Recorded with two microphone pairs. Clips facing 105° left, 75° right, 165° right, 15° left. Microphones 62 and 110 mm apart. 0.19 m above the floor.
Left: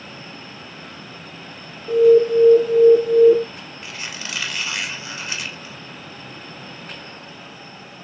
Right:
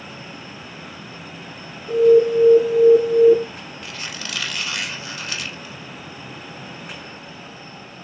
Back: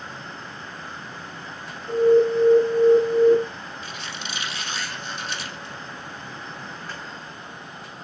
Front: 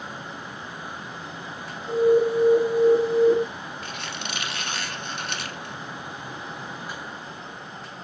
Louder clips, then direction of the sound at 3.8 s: Left 1 dB, front 1 dB; 35° left.